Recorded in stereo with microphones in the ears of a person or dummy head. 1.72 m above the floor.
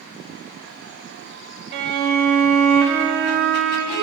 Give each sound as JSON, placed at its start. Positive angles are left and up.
{"t": 1.7, "sound": "a violin", "side_deg": -50, "distance_m": 1.3}